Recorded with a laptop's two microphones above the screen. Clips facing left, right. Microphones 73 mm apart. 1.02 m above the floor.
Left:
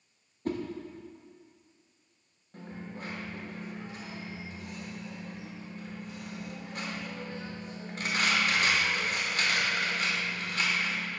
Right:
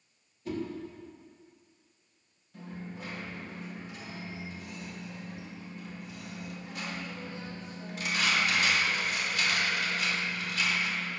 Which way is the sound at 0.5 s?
45° left (ahead or behind).